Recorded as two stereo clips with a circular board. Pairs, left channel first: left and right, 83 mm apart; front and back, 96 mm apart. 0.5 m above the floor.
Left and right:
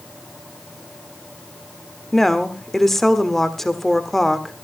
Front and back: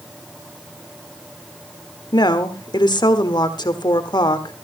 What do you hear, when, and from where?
2.1 s a woman speaking: 5° left, 1.4 m